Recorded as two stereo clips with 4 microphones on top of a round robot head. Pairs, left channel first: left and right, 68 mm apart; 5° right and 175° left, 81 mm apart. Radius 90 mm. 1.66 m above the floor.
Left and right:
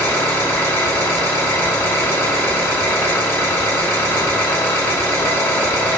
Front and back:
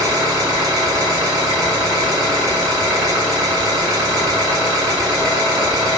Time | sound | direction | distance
0.0 | an engine running | 135° left | 0.7 m